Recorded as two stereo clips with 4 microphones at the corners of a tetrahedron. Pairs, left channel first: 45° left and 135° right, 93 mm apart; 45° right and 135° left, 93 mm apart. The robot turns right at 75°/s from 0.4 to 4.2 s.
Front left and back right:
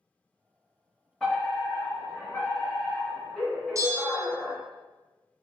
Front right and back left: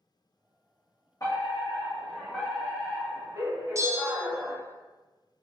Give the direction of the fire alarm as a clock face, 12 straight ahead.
1 o'clock.